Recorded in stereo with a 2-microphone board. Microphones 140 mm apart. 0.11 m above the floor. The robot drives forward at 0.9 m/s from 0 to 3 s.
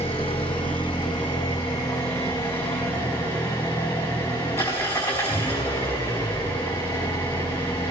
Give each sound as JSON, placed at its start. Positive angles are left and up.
{"t": 0.0, "sound": "an engine running", "side_deg": 45, "distance_m": 2.5}